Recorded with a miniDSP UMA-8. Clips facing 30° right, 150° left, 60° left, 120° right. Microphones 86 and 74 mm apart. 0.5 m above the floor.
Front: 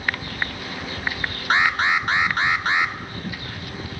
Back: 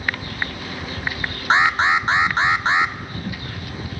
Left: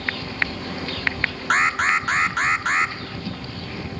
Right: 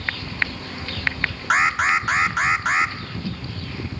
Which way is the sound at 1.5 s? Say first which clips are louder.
Back 3 dB, right 1 dB; 155° left.